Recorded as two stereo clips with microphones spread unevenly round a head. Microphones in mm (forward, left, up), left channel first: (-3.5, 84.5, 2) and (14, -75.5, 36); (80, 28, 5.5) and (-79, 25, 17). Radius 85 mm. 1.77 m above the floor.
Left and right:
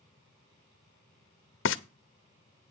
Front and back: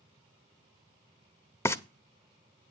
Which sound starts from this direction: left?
Frying, at 1.6 s.